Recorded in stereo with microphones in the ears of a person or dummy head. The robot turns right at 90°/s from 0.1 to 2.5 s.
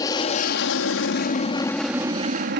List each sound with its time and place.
0.0 s an aircraft: 25° left; by 2.6 s 115° right